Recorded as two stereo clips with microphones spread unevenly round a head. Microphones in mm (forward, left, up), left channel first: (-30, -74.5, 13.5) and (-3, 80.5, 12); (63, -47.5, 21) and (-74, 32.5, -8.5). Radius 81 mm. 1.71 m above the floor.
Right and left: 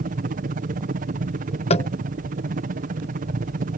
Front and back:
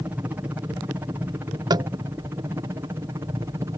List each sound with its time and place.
0.0 s a helicopter: 80° left; by 3.8 s 85° left
1.7 s tapping: 140° right